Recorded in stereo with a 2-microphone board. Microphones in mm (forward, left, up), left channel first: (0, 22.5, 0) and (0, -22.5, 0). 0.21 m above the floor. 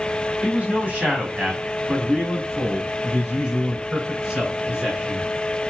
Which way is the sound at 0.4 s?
25° right (ahead or behind).